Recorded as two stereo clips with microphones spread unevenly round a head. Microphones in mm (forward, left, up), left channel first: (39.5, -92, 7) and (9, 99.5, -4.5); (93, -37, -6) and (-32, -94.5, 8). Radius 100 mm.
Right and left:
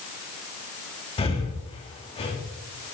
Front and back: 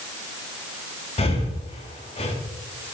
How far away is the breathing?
About 2.0 m.